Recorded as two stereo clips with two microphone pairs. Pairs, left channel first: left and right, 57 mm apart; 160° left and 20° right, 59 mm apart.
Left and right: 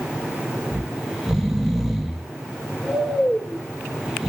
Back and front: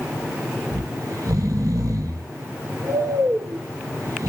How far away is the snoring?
About 0.5 m.